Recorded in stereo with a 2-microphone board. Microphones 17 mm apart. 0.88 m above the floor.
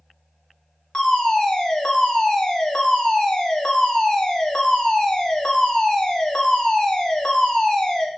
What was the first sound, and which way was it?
A fire alarm, 55° left (ahead or behind).